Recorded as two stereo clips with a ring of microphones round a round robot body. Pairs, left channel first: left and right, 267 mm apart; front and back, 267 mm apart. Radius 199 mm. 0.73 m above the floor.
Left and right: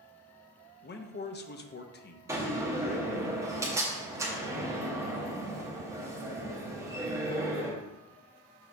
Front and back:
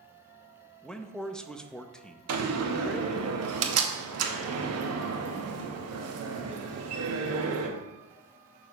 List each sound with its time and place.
0.8 s a man speaking: 85° left, 0.8 m
2.3 s a door slam: 170° right, 0.9 m